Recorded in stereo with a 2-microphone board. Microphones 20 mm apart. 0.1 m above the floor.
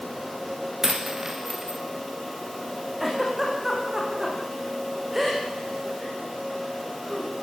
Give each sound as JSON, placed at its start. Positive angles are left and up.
{"t": 0.8, "sound": "a dropped coin", "side_deg": -30, "distance_m": 3.0}
{"t": 3.0, "sound": "a giggle", "side_deg": -15, "distance_m": 8.5}